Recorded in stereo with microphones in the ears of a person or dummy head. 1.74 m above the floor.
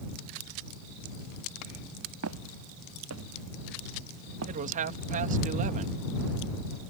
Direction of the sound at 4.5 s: 40° right (ahead or behind).